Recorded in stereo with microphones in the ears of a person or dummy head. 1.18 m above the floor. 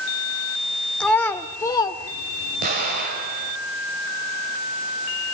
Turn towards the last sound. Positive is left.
turn(degrees=-55)  # may be behind; listen again after turning